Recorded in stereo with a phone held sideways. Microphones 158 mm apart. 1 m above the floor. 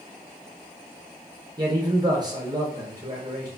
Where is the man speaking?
25° right (ahead or behind), 0.8 m.